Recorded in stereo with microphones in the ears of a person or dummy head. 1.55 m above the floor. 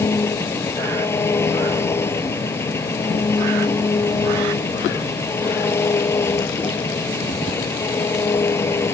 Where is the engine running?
10° left (ahead or behind).